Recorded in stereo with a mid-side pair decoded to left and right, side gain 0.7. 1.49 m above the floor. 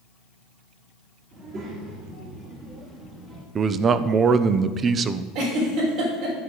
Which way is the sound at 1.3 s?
50° right.